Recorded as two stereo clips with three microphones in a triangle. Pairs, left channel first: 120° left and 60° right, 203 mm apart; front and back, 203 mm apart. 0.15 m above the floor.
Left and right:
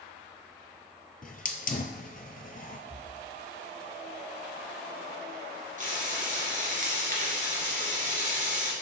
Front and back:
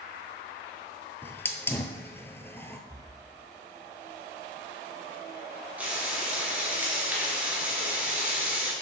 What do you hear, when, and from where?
1.2 s a hiss: 80° left, 0.7 m
2.9 s breathing: 110° right, 1.1 m
5.8 s frying: 100° right, 2.5 m